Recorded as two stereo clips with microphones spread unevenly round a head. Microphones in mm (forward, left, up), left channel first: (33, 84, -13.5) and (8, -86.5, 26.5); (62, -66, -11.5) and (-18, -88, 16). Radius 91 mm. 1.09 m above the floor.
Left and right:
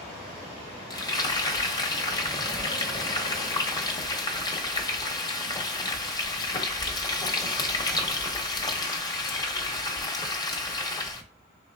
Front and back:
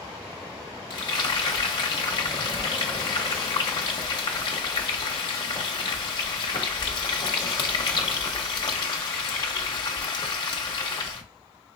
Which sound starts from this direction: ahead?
Frying, at 0.9 s.